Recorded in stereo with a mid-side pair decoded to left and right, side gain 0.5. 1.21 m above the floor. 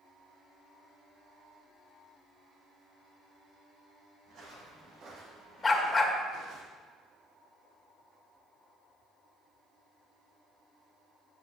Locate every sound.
4.3 s footsteps: 60° right, 4 m; by 6.6 s 70° right, 3 m
5.6 s a dog barking: 25° left, 1.9 m